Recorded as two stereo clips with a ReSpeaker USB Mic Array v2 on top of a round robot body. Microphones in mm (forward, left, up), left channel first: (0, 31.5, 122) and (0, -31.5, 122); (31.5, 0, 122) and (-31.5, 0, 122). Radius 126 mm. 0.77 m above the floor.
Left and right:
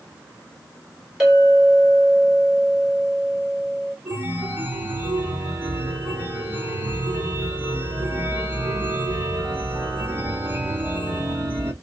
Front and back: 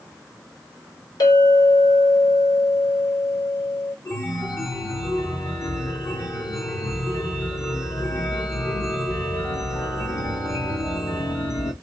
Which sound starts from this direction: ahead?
A clink, at 1.2 s.